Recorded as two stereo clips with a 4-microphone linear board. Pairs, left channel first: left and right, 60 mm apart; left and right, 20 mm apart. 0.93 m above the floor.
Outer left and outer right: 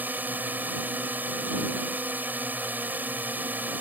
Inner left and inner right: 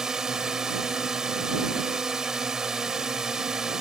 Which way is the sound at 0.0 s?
30° right (ahead or behind).